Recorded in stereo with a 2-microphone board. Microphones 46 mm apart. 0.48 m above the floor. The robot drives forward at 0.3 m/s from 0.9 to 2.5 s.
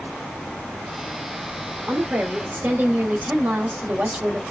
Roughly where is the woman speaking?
Right.